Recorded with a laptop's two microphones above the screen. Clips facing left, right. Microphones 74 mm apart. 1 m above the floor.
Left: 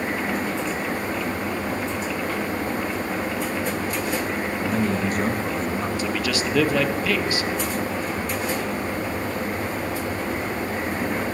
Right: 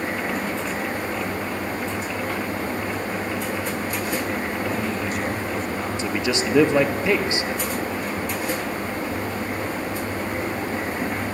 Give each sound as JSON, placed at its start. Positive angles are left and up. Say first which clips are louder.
{"t": 4.7, "sound": "a man speaking", "louder": "left 2 dB", "side_deg": 50, "distance_m": 1.1}
{"t": 6.0, "sound": "a man speaking", "louder": "right 1 dB", "side_deg": -25, "distance_m": 1.1}